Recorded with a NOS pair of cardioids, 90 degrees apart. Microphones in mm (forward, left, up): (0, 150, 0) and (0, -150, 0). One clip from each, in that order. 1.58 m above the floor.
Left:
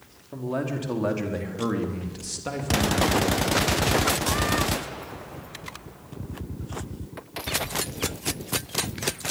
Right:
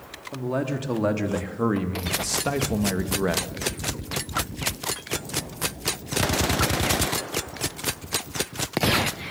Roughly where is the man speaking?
Ahead.